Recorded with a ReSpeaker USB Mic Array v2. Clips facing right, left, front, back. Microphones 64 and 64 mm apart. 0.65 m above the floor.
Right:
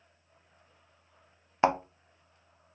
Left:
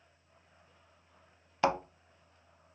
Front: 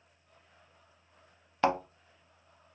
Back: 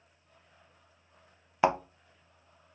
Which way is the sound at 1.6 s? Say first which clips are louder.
Right 4 dB, back 2 dB; 120° right.